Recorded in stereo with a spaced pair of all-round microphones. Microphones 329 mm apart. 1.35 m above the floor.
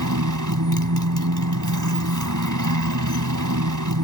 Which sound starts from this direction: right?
A motorcycle, at 0.0 s.